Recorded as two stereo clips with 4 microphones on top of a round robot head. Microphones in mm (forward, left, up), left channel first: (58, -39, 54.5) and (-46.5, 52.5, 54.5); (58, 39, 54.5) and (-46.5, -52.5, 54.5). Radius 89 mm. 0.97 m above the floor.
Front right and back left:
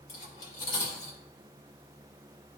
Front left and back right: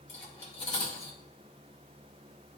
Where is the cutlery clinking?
5° right, 2 m.